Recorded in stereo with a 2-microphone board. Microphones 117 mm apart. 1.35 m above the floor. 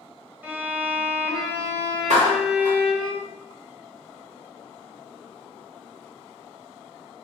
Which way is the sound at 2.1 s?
80° right.